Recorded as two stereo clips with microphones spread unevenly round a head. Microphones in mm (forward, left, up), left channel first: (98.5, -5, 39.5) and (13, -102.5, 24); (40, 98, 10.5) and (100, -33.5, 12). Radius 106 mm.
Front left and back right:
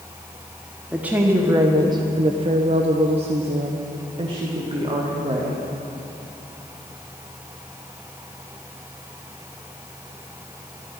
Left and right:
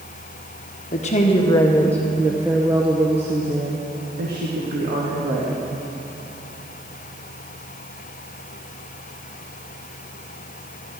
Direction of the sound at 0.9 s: 150° left.